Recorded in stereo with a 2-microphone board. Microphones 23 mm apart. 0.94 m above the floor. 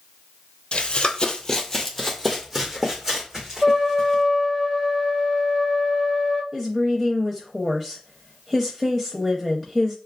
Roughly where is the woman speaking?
Centre.